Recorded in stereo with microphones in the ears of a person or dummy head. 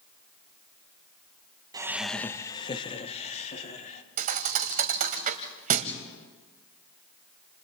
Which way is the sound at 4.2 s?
40° right (ahead or behind).